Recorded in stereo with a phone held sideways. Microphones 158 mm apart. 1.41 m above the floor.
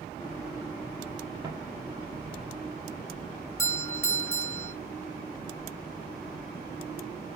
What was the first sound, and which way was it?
Footsteps, 20° right (ahead or behind).